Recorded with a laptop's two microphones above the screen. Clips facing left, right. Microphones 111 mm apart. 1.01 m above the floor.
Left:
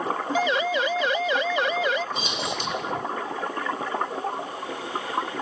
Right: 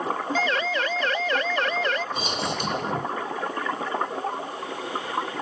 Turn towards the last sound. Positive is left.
turn(degrees=-50)  # may be behind; listen again after turning